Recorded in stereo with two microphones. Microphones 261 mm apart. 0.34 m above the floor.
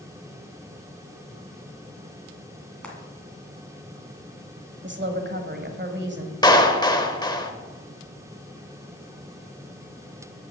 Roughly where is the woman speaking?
Right.